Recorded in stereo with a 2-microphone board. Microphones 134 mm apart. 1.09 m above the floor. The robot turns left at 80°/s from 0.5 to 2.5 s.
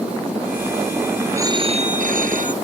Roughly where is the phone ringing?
Ahead.